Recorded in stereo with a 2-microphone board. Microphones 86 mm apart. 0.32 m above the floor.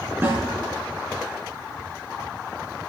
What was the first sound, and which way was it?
A snare drum, 25° right (ahead or behind).